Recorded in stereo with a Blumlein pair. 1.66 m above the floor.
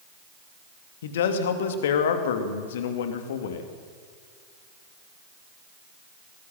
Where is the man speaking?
60° left, 2.5 m.